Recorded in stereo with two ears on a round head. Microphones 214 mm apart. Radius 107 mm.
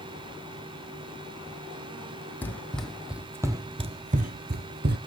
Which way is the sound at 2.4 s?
10° left (ahead or behind).